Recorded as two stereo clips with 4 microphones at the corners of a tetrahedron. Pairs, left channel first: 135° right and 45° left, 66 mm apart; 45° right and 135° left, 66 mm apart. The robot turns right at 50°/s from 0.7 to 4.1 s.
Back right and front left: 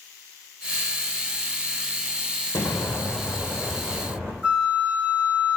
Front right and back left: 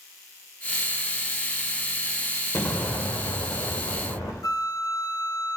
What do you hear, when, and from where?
2.5 s an explosion: 90° right, 3.5 m; by 4.3 s 15° right, 3.5 m
4.4 s a flute: 30° right, 1.2 m